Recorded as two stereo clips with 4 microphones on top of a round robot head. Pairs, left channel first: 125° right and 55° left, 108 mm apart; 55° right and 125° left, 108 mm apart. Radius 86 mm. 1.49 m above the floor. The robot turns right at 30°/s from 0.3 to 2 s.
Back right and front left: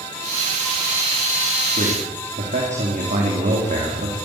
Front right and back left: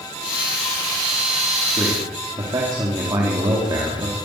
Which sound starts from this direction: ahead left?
A man speaking, at 1.8 s.